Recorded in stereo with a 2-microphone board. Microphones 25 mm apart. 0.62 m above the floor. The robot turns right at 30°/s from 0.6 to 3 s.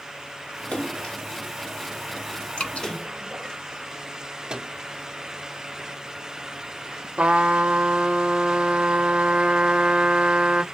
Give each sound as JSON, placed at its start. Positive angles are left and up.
{"t": 0.7, "sound": "a splash", "side_deg": 60, "distance_m": 1.4}
{"t": 2.6, "sound": "dripping", "side_deg": 75, "distance_m": 1.6}
{"t": 4.5, "sound": "a microwave", "side_deg": -40, "distance_m": 0.6}
{"t": 7.2, "sound": "a trumpet", "side_deg": -60, "distance_m": 0.7}